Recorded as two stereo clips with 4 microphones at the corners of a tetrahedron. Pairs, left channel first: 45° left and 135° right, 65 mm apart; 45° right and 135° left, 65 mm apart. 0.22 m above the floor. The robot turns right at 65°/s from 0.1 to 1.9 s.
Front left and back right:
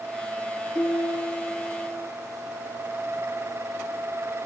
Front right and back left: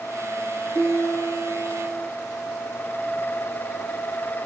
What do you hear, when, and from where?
0.8 s a piano: 20° right, 6 m; by 2.1 s 55° left, 6 m